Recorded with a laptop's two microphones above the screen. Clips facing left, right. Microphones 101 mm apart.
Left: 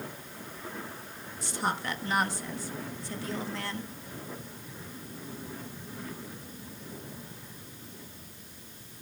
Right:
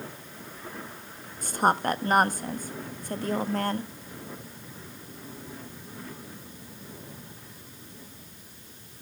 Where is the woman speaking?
45° right (ahead or behind), 1.2 m.